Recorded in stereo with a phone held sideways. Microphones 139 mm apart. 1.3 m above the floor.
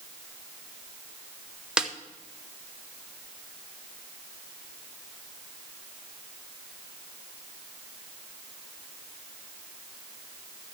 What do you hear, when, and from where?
1.8 s a snare drum: 5° right (ahead or behind), 0.8 m